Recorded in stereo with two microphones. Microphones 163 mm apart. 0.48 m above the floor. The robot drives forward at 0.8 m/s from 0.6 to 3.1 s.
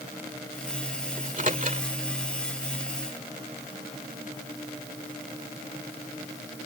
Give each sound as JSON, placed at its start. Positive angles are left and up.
{"t": 1.2, "sound": "a microwave", "side_deg": -55}